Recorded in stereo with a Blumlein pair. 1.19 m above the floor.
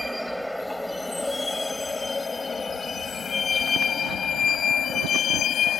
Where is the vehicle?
5° right; by 5.8 s 25° left.